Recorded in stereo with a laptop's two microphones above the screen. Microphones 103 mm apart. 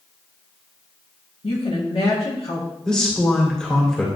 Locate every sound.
1.4 s a woman speaking: 65° left (ahead or behind), 2 m
2.9 s a man speaking: 5° left (ahead or behind), 2.5 m